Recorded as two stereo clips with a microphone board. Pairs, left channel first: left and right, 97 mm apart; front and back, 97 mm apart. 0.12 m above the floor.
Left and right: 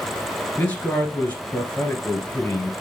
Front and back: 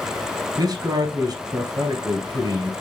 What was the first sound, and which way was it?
A man speaking, 160° left.